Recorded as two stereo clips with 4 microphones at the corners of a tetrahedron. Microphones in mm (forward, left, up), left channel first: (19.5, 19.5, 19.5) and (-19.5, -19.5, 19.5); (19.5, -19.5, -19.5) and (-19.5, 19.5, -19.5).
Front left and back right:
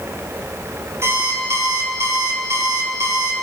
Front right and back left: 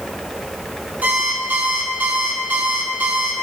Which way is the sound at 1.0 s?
165° right.